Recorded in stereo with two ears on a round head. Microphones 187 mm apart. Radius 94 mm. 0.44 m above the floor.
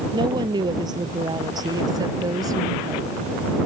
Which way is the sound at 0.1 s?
20° right (ahead or behind).